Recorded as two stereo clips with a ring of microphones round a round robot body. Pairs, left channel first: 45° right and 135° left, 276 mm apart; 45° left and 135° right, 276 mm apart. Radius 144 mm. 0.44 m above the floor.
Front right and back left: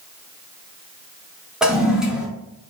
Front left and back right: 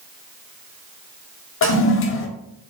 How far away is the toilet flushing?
About 0.5 m.